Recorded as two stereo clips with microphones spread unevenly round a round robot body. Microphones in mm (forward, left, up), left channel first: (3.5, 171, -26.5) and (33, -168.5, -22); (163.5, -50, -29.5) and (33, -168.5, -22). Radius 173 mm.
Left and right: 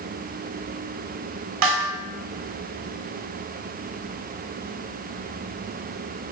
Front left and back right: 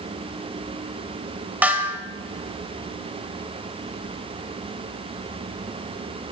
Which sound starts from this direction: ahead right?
A snare drum, at 1.6 s.